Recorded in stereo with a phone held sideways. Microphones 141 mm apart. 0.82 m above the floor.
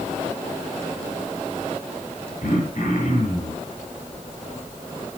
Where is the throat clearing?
80° left, 8 m.